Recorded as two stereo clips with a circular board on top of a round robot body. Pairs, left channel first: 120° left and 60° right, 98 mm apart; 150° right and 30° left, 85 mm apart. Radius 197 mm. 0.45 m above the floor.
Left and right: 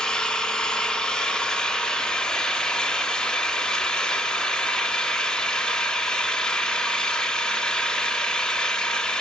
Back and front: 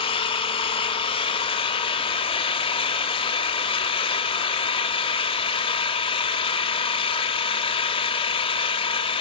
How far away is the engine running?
About 0.8 m.